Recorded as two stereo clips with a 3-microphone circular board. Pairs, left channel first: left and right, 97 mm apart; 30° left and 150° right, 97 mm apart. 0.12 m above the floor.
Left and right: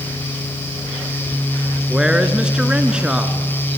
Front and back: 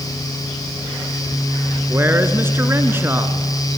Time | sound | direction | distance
1.9 | a man speaking | 160° right | 1.3 m